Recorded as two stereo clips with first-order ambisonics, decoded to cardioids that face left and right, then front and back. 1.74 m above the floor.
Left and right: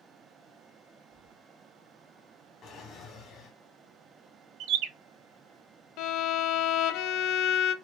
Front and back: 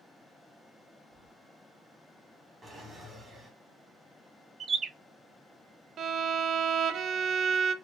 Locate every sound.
1.1 s keys jangling: 135° right, 2.5 m
2.6 s a drawer: 105° left, 1.4 m
4.6 s a bird: 110° right, 0.6 m
6.0 s a violin: 120° left, 0.7 m